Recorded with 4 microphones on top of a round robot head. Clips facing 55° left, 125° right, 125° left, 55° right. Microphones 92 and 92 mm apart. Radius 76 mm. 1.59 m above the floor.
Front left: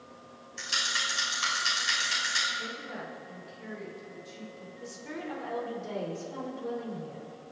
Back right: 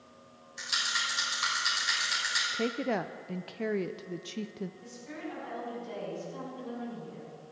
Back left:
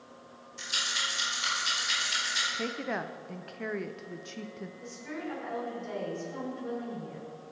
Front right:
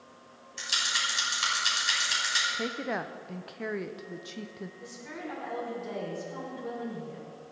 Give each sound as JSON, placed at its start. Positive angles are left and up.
{"t": 0.6, "sound": "a rattle", "azimuth_deg": -45, "distance_m": 6.0}
{"t": 2.5, "sound": "a woman speaking", "azimuth_deg": -140, "distance_m": 0.6}
{"t": 4.8, "sound": "a woman speaking", "azimuth_deg": 30, "distance_m": 6.0}